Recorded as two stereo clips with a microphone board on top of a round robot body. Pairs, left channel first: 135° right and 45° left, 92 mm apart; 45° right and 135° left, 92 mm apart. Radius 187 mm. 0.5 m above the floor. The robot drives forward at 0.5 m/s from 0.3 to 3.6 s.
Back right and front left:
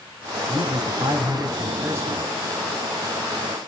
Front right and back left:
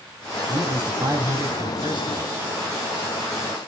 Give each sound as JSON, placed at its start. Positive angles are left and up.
{"t": 0.5, "sound": "a man speaking", "azimuth_deg": 75, "distance_m": 1.7}